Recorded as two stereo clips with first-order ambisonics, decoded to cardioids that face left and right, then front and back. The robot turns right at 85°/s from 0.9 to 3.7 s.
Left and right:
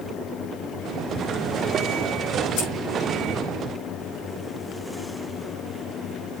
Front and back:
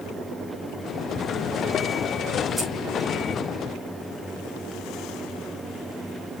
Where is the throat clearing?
I don't hear throat clearing.